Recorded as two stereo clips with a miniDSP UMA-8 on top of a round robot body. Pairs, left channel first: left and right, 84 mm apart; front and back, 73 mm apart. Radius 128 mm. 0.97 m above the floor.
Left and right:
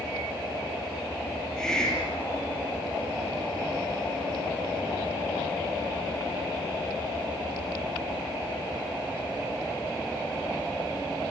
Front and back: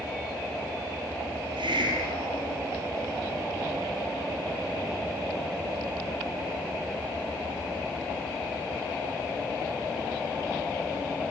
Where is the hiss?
175° left, 5.5 m.